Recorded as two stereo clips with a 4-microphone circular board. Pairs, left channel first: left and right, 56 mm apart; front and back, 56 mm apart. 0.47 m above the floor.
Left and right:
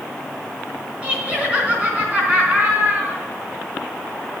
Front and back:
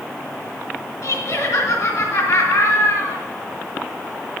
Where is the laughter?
20° right, 4 m.